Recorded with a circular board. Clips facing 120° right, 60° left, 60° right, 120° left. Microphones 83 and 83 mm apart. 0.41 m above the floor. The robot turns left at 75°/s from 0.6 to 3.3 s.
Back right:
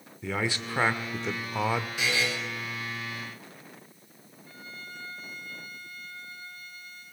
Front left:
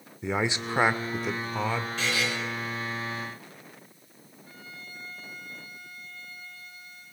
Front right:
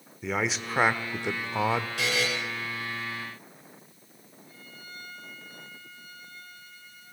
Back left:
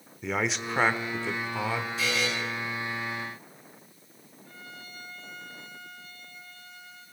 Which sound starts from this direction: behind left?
A violin, at 4.5 s.